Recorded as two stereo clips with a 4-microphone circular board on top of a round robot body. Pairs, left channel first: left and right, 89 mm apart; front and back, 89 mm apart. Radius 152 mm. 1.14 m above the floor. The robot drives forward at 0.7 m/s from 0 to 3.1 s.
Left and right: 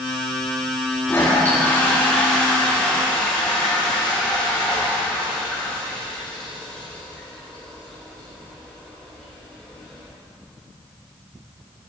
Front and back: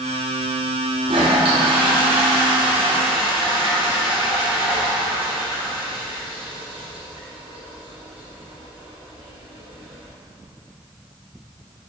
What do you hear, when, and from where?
1.1 s a toilet flushing: 160° left, 1.0 m; by 10.1 s 170° left, 2.5 m